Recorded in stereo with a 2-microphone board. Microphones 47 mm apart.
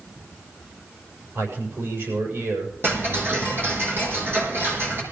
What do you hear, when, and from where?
1.4 s a man speaking: 60° right (ahead or behind), 6.5 m
2.8 s ticking: 50° right (ahead or behind), 4.5 m